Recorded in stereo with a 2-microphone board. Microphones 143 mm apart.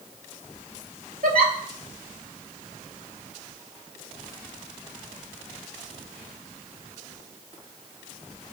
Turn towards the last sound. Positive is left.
turn(degrees=-80)